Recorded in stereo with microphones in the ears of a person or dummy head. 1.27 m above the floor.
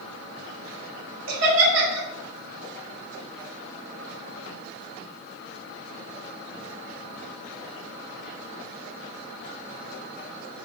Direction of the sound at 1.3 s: 85° right.